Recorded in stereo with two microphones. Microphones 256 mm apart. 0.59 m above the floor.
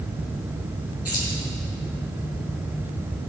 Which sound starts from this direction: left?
Keys jangling, at 1.1 s.